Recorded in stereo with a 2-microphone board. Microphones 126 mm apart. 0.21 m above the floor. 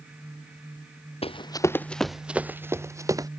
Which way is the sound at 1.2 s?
50° left (ahead or behind).